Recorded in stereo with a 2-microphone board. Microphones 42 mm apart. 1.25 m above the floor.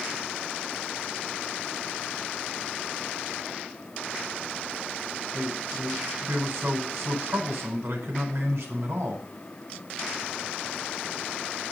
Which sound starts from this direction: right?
A man speaking, at 5.3 s.